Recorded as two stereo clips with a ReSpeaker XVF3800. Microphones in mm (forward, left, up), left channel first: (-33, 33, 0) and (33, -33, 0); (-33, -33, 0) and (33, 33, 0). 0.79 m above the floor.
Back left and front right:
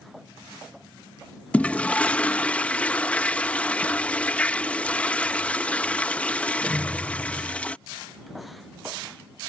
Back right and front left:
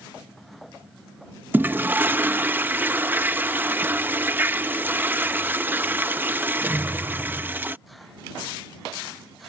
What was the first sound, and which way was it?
A toilet flushing, 80° left.